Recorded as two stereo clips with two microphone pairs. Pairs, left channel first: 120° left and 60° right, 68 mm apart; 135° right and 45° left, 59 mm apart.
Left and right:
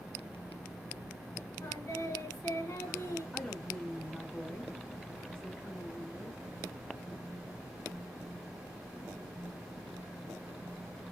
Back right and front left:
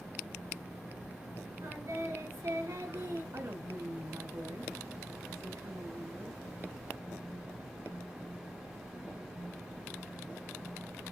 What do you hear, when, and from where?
1.6 s singing: 75° left, 2 m
3.3 s a woman speaking: 45° left, 1.3 m